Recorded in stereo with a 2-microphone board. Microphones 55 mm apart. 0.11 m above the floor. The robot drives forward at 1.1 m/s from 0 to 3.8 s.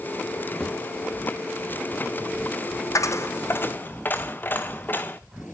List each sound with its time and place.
0.6 s a thud: 5° left (ahead or behind), 6 m
3.0 s a dropped coin: 75° left (ahead or behind), 0.8 m; by 5.2 s 35° left (ahead or behind), 1.4 m